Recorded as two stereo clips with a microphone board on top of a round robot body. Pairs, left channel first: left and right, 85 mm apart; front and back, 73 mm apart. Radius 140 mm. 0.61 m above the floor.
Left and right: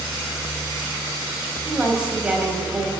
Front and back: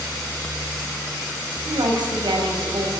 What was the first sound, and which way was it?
A woman speaking, 170° right.